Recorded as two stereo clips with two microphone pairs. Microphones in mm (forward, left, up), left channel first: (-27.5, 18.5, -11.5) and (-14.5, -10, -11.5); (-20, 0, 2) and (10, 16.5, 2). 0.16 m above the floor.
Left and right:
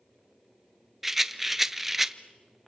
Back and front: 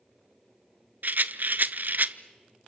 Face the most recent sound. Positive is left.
turn(degrees=15)